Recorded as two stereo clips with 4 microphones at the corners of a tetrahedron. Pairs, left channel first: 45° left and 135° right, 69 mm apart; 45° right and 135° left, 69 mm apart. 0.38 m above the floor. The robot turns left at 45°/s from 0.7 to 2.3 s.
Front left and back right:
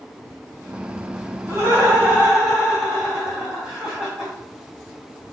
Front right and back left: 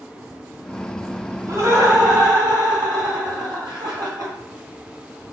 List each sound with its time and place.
1.5 s laughter: straight behind, 2.5 m; by 4.3 s 145° left, 2.5 m